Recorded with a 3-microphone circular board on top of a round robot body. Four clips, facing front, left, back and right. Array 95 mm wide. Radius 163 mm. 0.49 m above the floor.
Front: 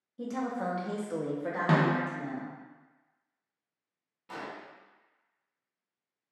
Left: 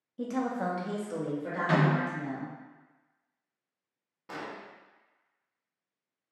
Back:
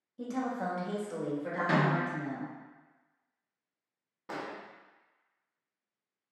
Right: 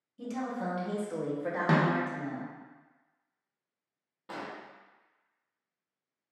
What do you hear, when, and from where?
0.2 s a woman speaking: 95° left, 0.9 m; by 2.5 s 65° right, 1.4 m
1.7 s a snare drum: 50° right, 0.8 m
4.3 s an explosion: 175° right, 0.6 m